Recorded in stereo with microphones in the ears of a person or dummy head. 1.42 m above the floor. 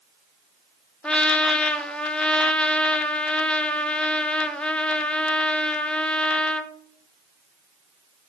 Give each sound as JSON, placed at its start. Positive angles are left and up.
{"t": 1.0, "sound": "a trumpet", "side_deg": 5, "distance_m": 0.5}